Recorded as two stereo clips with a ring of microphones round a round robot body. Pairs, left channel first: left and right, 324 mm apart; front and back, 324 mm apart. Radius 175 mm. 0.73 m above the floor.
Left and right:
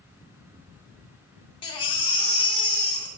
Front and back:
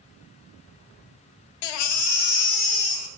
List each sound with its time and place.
1.6 s a baby crying: 15° left, 0.6 m